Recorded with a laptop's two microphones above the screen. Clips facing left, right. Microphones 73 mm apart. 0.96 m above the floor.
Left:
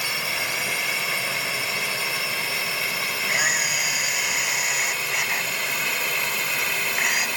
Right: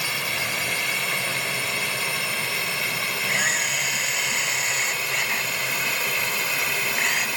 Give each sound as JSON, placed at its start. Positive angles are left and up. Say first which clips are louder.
{"t": 0.0, "sound": "a drone", "louder": "even", "side_deg": 5}
{"t": 3.3, "sound": "a camera shutter", "louder": "left 1 dB", "side_deg": 10}